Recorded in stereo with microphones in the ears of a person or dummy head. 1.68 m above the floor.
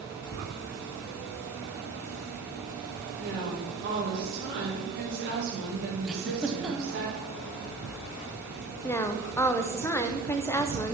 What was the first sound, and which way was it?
Tapping, 15° left (ahead or behind).